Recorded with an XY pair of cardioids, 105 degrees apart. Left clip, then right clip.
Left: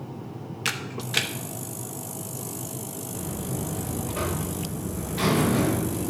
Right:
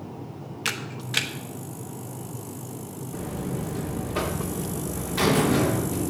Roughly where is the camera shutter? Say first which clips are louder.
Left 1 dB; ahead.